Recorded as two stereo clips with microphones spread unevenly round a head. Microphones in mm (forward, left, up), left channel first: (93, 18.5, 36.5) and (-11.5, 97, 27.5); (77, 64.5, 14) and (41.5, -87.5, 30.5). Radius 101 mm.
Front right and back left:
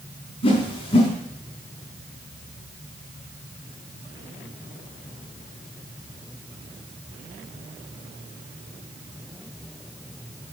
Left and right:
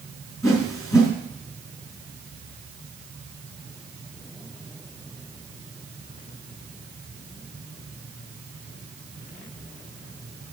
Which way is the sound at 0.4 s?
5° left.